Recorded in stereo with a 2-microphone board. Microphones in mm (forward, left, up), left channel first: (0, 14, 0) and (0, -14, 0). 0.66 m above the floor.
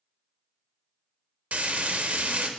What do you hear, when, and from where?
1.5 s frying: 60° right (ahead or behind), 0.6 m